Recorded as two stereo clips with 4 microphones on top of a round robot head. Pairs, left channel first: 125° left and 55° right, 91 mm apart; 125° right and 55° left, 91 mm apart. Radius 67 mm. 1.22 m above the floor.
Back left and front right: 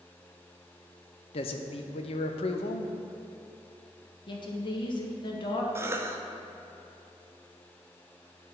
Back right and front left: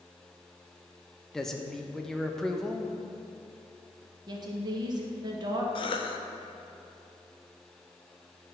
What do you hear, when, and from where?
1.3 s a man speaking: 150° left, 0.6 m
4.3 s a woman speaking: 95° left, 1.2 m
5.8 s a cough: 115° right, 0.8 m